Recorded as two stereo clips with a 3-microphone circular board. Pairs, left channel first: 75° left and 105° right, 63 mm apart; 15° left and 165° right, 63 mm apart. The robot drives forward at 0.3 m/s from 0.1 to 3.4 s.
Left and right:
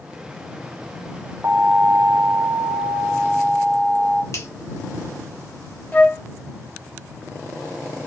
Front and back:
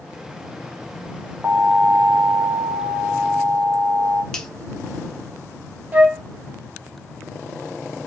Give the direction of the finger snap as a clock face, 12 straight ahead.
9 o'clock.